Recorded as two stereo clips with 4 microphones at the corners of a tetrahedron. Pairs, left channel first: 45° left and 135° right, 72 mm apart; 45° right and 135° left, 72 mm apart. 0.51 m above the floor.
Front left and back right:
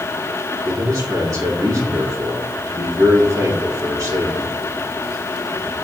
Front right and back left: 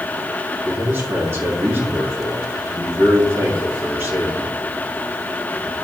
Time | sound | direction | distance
0.7 | a man speaking | 175° right | 3.5 m